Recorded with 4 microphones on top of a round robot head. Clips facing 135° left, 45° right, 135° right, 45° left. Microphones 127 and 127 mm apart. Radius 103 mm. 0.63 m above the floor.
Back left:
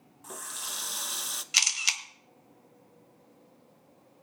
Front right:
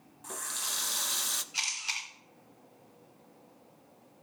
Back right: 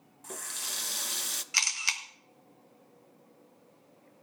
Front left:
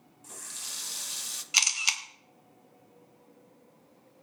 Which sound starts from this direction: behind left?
A camera shutter, at 1.5 s.